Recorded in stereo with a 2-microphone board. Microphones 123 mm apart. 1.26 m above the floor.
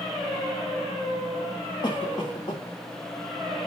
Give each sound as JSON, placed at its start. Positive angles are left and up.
{"t": 1.8, "sound": "a cough", "side_deg": 40, "distance_m": 2.0}